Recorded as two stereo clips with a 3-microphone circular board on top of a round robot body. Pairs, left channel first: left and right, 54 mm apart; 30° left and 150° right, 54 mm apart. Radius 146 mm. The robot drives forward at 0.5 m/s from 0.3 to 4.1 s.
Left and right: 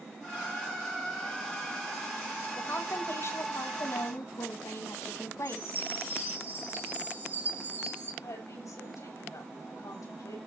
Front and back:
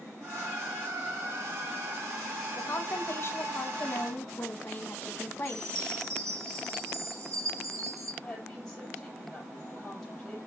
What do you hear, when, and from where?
2.5 s a woman speaking: 55° left, 2 m; by 5.8 s 80° left, 1.8 m
5.5 s a chime: 140° right, 4.5 m
8.2 s a woman speaking: 110° left, 5.5 m